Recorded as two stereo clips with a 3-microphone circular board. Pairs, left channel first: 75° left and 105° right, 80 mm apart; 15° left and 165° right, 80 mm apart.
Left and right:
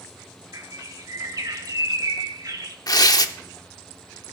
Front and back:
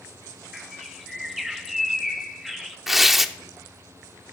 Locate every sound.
0.5 s a bird: 80° right, 1.3 m
2.9 s tearing paper: 110° left, 0.8 m